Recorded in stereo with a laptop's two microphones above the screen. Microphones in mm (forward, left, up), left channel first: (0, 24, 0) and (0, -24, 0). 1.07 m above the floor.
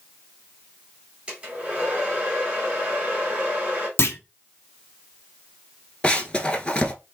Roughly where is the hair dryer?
Right.